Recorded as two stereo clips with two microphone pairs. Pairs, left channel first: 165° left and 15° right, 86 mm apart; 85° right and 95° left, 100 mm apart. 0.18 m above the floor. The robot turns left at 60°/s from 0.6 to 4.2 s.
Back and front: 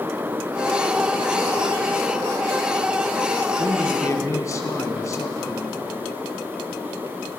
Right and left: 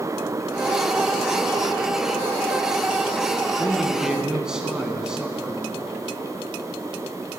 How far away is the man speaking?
About 1.4 m.